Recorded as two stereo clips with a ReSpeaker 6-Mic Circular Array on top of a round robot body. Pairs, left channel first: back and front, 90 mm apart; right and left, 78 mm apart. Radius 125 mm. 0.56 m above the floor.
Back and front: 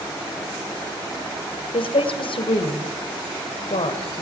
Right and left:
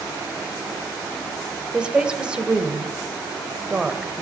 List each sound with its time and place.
1.7 s a woman speaking: 170° left, 2.5 m